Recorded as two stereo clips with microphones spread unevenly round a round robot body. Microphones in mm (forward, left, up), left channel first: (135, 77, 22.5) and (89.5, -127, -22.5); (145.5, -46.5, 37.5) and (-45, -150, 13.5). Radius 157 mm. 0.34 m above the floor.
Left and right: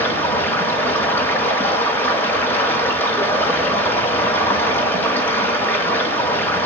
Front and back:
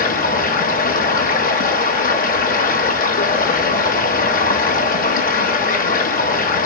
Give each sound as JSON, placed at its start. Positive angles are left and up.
{"t": 0.0, "sound": "running water", "azimuth_deg": -15, "distance_m": 1.3}